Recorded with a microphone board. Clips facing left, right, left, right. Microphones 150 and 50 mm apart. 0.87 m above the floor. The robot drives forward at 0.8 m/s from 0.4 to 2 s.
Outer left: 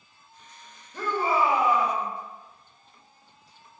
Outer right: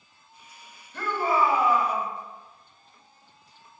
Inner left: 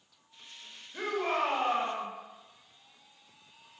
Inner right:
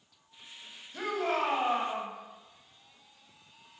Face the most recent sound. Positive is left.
turn(degrees=10)  # may be behind; listen again after turning